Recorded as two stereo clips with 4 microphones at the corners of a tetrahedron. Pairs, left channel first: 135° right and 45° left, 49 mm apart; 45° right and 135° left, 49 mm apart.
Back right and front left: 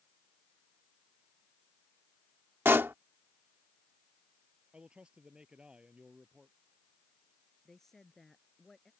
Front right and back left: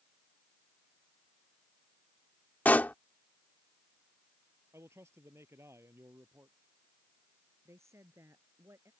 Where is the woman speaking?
140° left.